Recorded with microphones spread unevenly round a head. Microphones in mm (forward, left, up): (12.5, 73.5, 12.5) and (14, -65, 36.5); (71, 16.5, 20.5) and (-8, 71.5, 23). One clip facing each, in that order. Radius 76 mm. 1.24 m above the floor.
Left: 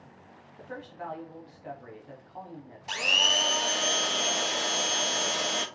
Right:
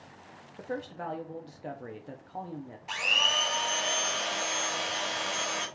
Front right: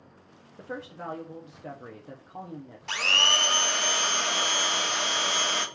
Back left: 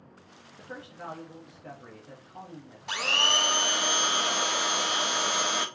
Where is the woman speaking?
75° right, 0.6 m.